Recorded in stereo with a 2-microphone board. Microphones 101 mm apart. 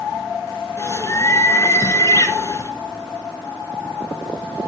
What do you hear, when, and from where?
0.8 s a bird: 30° left (ahead or behind), 1.4 m